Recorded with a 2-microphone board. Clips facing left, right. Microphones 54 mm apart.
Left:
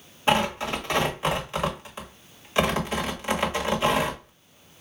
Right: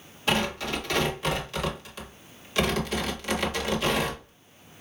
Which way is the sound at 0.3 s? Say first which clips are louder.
Left 4 dB; 25° left (ahead or behind).